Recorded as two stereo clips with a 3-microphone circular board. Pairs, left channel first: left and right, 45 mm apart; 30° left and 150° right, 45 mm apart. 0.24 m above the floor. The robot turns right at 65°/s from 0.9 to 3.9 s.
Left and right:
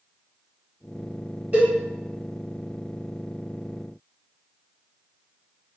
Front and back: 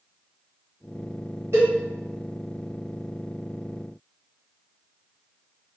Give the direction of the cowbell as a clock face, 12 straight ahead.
5 o'clock.